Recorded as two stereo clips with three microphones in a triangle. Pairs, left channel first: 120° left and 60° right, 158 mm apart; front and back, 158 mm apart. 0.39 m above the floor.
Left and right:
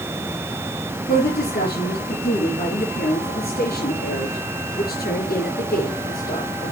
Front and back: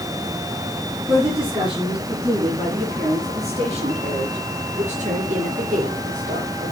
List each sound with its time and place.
1.1 s a woman speaking: 115° left, 5.5 m; by 6.7 s 150° left, 5.5 m